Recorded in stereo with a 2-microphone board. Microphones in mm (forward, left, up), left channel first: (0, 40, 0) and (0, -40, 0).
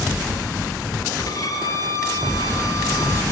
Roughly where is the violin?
Left.